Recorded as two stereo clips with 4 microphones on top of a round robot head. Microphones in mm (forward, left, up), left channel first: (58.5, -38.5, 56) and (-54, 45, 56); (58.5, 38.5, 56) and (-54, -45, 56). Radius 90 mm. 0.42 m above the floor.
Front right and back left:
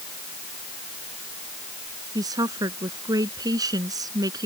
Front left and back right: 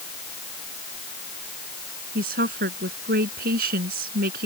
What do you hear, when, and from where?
2.1 s a woman speaking: 155° right